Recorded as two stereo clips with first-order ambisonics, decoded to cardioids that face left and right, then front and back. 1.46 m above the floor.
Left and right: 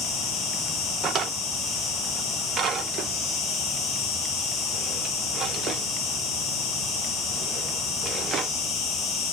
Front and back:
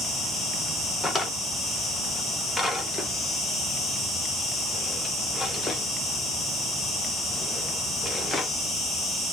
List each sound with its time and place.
0.0 s an insect: 80° left, 1.7 m
1.0 s a drawer: 65° right, 0.6 m